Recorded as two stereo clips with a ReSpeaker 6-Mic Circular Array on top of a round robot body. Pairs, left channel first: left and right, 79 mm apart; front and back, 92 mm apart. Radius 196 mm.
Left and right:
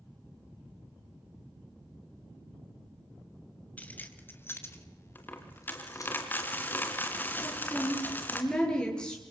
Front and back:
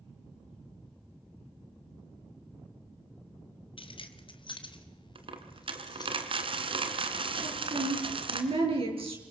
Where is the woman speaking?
170° left, 8.5 m.